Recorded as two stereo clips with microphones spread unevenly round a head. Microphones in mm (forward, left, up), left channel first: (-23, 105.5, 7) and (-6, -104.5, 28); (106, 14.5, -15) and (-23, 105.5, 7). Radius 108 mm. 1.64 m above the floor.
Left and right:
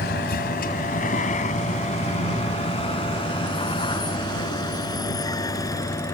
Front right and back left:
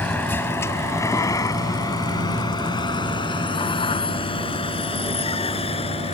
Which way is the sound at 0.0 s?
45° left.